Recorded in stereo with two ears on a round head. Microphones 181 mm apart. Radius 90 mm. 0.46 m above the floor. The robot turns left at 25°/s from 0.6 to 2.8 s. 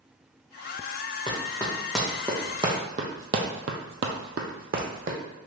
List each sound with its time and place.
1.3 s running footsteps: 25° left (ahead or behind), 1.8 m; by 5.2 s 40° right (ahead or behind), 1.2 m